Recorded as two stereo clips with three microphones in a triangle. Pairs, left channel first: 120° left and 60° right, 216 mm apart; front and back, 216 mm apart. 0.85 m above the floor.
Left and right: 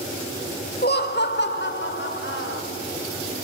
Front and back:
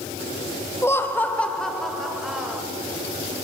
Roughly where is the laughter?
Left.